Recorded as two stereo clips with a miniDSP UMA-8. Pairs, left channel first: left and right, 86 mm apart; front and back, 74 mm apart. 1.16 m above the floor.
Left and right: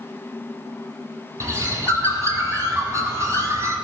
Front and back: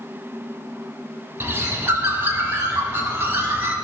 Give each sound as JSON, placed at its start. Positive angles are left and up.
{"t": 1.4, "sound": "a bird", "azimuth_deg": -130, "distance_m": 1.4}